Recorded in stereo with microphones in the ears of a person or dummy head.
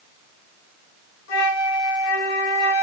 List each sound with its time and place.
1.3 s a flute: 90° left, 3 m